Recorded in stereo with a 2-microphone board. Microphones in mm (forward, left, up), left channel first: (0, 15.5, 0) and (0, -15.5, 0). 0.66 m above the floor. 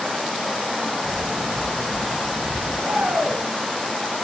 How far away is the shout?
About 5.5 m.